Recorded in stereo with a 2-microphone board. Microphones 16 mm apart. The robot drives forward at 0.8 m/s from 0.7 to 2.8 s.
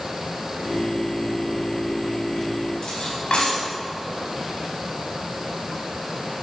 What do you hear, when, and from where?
2.8 s cutlery clinking: 65° left (ahead or behind), 4.5 m